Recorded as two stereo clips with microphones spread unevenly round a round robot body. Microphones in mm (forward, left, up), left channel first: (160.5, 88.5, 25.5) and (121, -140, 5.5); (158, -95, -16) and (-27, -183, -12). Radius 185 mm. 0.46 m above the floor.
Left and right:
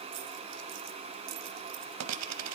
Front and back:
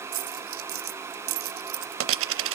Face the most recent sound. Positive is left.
turn(degrees=-140)